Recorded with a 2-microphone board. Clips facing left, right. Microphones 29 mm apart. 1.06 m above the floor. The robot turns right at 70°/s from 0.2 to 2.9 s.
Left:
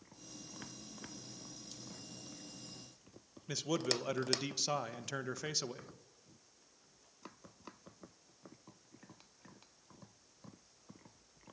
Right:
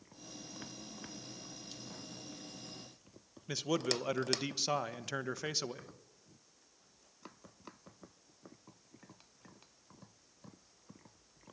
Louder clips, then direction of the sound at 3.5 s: Right 2 dB; 10° right (ahead or behind).